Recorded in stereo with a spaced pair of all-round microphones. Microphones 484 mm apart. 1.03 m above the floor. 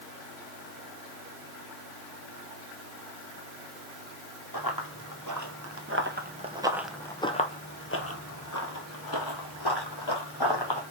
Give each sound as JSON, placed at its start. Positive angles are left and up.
{"t": 4.5, "sound": "running footsteps", "side_deg": -50, "distance_m": 1.5}